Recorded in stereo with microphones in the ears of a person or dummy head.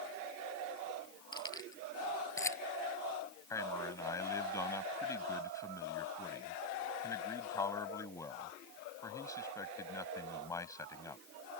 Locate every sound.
1.3 s keys jangling: 20° left (ahead or behind); by 2.6 s 10° left (ahead or behind)
3.5 s a man speaking: 15° left (ahead or behind)